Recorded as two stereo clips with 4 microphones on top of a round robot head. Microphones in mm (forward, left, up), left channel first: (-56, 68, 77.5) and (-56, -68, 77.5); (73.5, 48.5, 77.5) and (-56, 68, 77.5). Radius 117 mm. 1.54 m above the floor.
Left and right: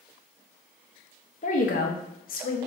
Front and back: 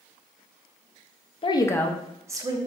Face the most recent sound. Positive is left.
turn(degrees=115)